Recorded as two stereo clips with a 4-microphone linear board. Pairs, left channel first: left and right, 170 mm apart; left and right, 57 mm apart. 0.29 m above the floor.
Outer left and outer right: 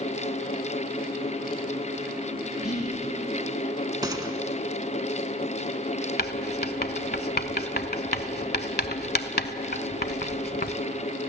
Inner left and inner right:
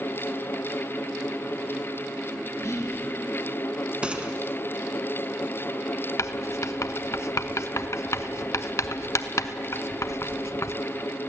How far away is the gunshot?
About 1.4 m.